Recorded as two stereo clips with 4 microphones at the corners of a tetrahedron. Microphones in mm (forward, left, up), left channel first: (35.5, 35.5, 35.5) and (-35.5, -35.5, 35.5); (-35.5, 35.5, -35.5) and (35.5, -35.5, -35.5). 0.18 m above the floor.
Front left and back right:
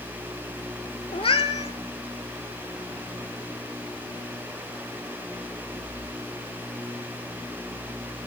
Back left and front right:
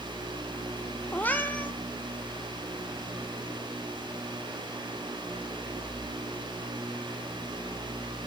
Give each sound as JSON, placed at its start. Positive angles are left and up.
{"t": 1.1, "sound": "a cat meowing", "azimuth_deg": 65, "distance_m": 0.5}